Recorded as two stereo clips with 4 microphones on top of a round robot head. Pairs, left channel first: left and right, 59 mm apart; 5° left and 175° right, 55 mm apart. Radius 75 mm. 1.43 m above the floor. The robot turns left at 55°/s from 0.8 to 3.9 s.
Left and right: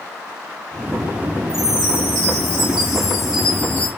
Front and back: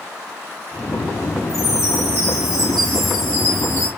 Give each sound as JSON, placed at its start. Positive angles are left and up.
{"t": 1.5, "sound": "a chime", "azimuth_deg": -85, "distance_m": 4.0}